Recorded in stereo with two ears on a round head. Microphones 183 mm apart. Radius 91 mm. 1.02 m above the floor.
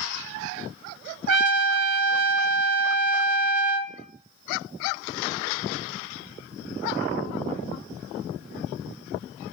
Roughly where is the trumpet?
Right.